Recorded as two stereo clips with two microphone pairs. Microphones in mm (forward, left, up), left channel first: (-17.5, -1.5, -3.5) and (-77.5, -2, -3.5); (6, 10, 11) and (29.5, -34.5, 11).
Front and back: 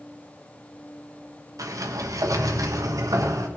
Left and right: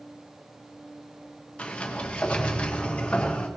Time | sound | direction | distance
1.6 | a sliding door | 175° right | 1.3 m